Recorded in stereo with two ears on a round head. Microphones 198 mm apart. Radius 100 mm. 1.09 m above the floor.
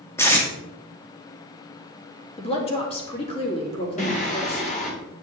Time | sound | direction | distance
0.2 | tape being pulled | 10° left (ahead or behind) | 2 m
2.4 | a woman speaking | 25° left (ahead or behind) | 2.5 m
4.0 | singing | 35° left (ahead or behind) | 2.5 m